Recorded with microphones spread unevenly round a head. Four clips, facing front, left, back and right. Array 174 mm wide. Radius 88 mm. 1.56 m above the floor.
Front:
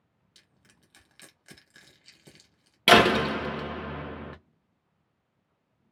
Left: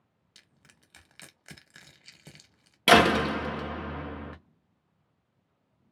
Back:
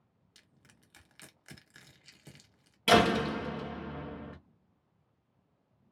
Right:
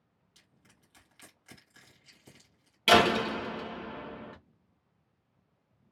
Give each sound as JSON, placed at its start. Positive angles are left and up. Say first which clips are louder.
{"t": 0.3, "sound": "crushing", "louder": "left 3 dB, front 1 dB", "azimuth_deg": 90, "distance_m": 1.0}
{"t": 2.9, "sound": "a door slam", "louder": "left 3 dB, front 5 dB", "azimuth_deg": 40, "distance_m": 0.7}